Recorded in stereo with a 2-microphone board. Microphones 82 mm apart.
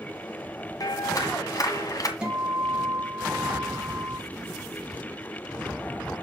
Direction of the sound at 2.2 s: 10° right (ahead or behind).